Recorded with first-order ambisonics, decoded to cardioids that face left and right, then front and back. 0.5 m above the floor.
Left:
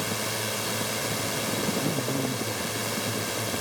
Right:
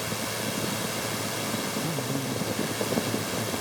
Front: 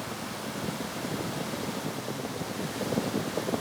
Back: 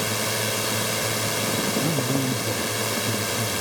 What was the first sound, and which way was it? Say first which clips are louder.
A drone: left 1 dB, back 11 dB; 165° left.